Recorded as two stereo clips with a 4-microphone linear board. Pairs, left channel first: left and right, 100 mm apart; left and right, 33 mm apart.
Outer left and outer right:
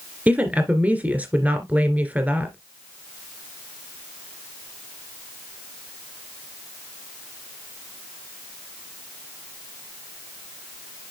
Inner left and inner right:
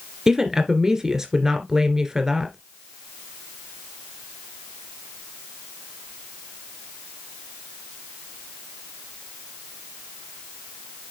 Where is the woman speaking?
15° right (ahead or behind), 2.5 m.